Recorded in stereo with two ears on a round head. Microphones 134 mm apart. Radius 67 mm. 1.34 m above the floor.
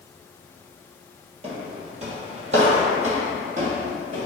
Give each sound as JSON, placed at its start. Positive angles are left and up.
{"t": 1.4, "sound": "footsteps", "side_deg": -40, "distance_m": 1.7}